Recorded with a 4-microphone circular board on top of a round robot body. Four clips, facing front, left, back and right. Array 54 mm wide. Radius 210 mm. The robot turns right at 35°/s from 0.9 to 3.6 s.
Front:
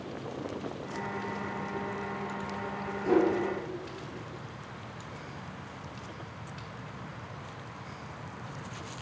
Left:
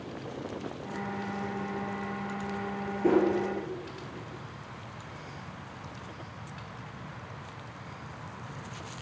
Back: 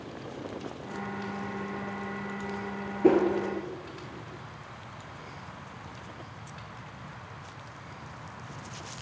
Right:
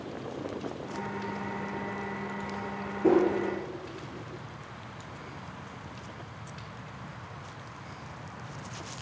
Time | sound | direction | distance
3.0 | a whoosh | straight behind | 2.5 m